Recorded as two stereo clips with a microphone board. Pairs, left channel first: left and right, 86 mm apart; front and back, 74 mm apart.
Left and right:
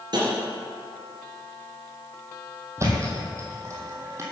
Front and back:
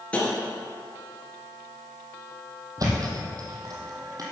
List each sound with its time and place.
0.1 s tapping: 70° right, 3 m
2.8 s a thud: 145° right, 2.5 m